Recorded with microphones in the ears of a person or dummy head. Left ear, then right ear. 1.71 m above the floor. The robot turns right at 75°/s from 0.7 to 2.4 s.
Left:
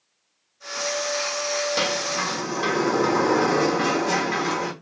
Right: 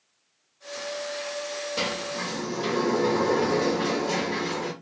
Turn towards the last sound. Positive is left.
turn(degrees=110)